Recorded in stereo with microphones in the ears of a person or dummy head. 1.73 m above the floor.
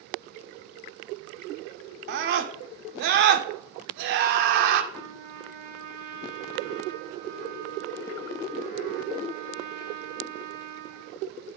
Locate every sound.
2.1 s a scream: 55° right (ahead or behind), 0.7 m
4.9 s a trumpet: 50° right (ahead or behind), 0.8 m